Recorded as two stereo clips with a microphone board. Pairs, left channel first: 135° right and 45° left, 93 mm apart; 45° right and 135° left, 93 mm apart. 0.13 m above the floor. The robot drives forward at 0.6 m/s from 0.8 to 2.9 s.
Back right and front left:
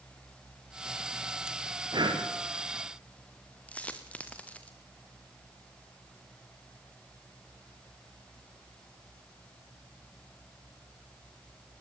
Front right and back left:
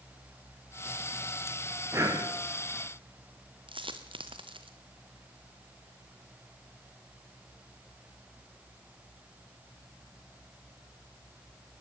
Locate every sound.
1.9 s breathing: 80° left, 5 m
3.7 s a dropped coin: 150° left, 2 m